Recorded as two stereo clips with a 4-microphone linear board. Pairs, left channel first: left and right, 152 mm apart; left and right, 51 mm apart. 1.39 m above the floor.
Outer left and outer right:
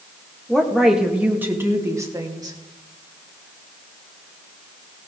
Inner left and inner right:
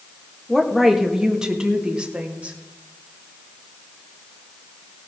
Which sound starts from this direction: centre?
A woman speaking, at 0.5 s.